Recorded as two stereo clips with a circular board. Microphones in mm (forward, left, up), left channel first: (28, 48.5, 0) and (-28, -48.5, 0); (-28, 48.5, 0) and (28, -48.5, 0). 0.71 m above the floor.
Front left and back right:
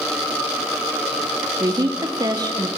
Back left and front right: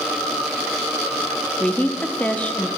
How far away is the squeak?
I don't hear a squeak.